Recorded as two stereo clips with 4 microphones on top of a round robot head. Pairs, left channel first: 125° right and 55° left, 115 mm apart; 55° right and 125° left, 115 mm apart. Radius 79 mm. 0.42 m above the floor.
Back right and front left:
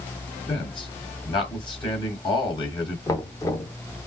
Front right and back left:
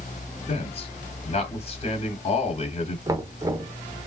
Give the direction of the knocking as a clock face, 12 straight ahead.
6 o'clock.